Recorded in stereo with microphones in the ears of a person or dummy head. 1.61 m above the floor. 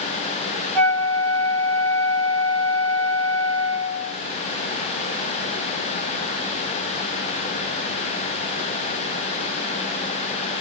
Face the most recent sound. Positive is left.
turn(degrees=0)  # may be behind; listen again after turning